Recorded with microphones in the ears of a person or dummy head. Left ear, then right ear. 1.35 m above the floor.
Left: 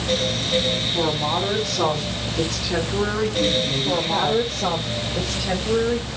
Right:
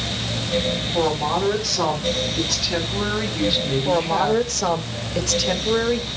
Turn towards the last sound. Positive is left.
turn(degrees=-60)  # may be behind; listen again after turning